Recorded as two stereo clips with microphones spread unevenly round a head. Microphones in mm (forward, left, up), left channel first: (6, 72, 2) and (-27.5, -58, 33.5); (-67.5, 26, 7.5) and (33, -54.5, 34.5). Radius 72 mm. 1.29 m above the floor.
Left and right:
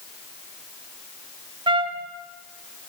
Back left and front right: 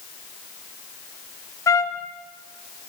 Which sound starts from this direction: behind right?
A trumpet, at 1.7 s.